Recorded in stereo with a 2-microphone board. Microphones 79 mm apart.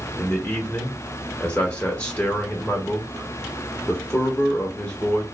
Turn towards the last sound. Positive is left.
turn(degrees=20)  # may be behind; listen again after turning